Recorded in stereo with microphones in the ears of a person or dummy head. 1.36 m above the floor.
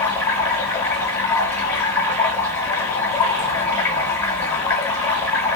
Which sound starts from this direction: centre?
Running water, at 0.0 s.